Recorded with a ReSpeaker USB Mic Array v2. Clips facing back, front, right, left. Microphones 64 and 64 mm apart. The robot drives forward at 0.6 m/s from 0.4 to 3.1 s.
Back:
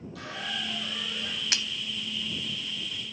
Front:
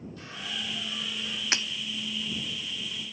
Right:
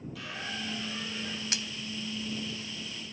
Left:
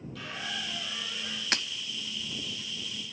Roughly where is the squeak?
Behind.